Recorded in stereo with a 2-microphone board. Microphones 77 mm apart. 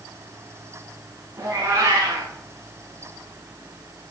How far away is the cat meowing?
About 5 m.